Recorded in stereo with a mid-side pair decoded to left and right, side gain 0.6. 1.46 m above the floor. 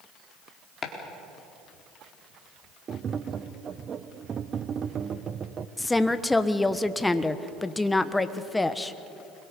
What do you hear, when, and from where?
0.8 s chopping: 30° left, 4 m
2.9 s tapping: 40° right, 0.9 m
5.8 s a woman speaking: 10° left, 1.3 m